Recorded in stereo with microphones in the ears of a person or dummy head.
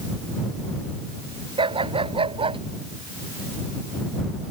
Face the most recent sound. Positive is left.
turn(degrees=-30)  # may be behind; listen again after turning